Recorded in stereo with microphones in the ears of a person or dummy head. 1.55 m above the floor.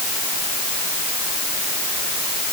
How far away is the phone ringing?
No phone ringing in this recording.